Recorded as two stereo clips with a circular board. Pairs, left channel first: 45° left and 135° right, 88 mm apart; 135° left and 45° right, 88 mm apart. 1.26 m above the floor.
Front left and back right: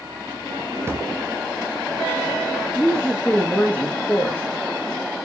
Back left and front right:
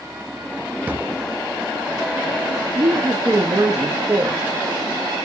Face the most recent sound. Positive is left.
turn(degrees=-20)